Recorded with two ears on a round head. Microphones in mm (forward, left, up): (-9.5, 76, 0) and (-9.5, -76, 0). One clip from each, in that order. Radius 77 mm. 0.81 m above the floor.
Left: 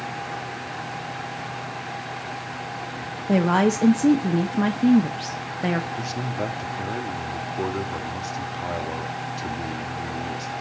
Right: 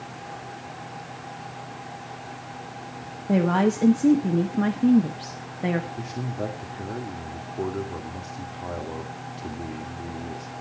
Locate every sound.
3.3 s a woman speaking: 25° left (ahead or behind), 1.0 m
6.0 s a man speaking: 50° left (ahead or behind), 2 m